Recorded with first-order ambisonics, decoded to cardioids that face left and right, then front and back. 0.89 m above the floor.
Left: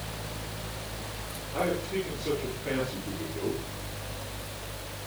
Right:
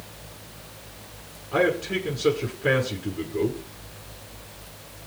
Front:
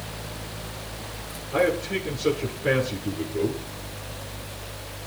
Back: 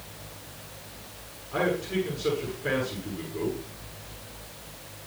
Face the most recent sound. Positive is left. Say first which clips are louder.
# right 7 dB, front 4 dB
turn(degrees=-80)